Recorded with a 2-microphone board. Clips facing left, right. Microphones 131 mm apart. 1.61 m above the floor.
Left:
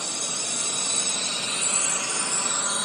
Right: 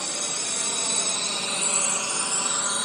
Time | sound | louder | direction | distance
0.0 | a drone | right 1 dB | 70° right (ahead or behind) | ?